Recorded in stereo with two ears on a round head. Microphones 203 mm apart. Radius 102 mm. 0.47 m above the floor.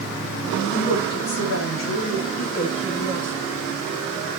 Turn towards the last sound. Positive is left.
turn(degrees=-5)  # may be behind; listen again after turning